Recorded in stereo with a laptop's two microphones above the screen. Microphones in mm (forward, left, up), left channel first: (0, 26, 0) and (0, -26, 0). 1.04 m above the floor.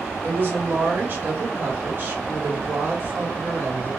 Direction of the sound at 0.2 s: 40° right (ahead or behind).